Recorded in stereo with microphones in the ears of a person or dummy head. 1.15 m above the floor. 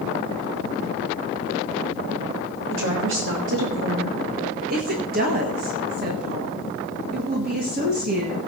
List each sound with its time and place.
2.7 s a woman speaking: 65° right (ahead or behind), 2.5 m
4.7 s a woman speaking: 50° right (ahead or behind), 1.7 m